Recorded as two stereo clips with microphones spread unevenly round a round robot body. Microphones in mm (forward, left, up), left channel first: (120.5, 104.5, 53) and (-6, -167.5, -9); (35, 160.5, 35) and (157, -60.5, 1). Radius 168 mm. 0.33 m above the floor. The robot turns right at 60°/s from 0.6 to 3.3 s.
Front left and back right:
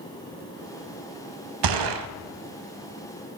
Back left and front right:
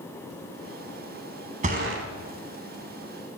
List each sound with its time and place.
1.6 s a gunshot: 130° right, 0.6 m; by 2.1 s 100° right, 0.6 m